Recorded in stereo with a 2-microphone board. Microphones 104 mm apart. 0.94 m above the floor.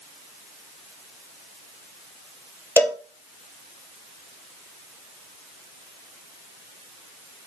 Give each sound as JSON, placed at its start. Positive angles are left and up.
{"t": 2.8, "sound": "a cowbell", "side_deg": 25, "distance_m": 1.7}